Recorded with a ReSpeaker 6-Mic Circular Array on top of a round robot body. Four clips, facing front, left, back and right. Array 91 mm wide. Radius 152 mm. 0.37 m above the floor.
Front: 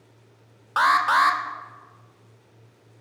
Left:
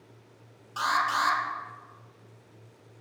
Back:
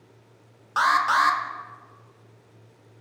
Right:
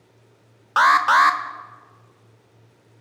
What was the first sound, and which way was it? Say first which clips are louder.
An alarm: right 12 dB, front 2 dB; 80° right.